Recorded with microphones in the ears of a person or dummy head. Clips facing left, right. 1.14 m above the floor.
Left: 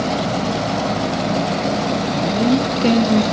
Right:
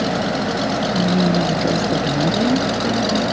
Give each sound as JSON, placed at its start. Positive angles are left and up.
{"t": 0.9, "sound": "a woman speaking", "side_deg": -70}